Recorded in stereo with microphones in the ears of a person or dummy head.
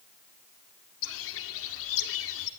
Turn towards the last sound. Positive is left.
turn(degrees=70)  # may be behind; listen again after turning